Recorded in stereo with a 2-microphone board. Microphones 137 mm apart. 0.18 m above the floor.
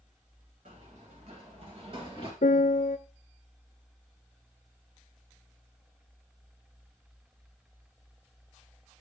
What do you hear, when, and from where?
0.7 s running footsteps: 60° right (ahead or behind), 6 m; by 2.3 s 40° right (ahead or behind), 6.5 m
2.4 s a piano: 80° left, 0.5 m